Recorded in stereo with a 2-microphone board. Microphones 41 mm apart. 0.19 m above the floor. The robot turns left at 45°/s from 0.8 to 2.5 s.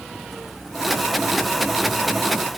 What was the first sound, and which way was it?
Only background noise.